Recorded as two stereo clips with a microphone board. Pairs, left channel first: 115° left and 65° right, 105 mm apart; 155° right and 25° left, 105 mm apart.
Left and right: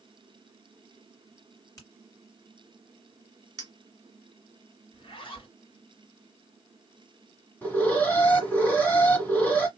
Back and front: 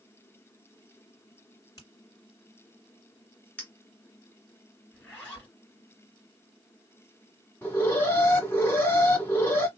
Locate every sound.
1.8 s a finger snap: 160° left, 2 m
3.6 s a clink: 90° right, 1.0 m
4.9 s a zipper: 130° left, 2 m
7.6 s an alarm: 165° left, 1.3 m